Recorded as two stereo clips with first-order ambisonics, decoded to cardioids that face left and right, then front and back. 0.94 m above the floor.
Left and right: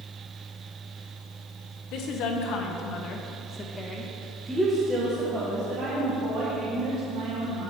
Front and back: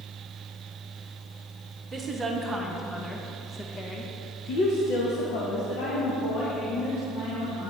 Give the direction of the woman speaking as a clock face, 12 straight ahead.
8 o'clock.